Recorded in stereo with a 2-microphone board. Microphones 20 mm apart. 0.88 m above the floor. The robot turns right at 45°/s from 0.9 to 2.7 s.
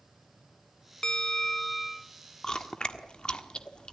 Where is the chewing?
40° left (ahead or behind), 1.4 m; by 3.9 s 50° left (ahead or behind), 1.4 m.